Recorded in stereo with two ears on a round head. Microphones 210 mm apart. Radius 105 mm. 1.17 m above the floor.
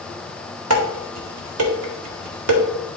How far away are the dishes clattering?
About 2 m.